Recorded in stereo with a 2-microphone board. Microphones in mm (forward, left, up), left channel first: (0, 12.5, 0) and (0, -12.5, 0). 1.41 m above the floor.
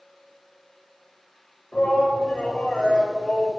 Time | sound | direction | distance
1.7 | a shout | 80° left | 8 m